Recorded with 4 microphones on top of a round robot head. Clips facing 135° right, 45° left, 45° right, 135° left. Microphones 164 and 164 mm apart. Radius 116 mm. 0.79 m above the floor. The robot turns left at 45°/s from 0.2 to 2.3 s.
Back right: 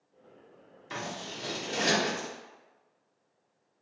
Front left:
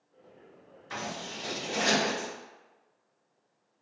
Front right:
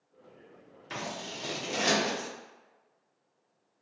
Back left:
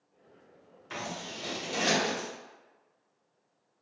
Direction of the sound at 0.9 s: 75° right.